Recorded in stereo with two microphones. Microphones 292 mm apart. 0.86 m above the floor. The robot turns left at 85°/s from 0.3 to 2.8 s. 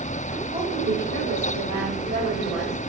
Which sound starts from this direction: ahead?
A woman speaking, at 0.5 s.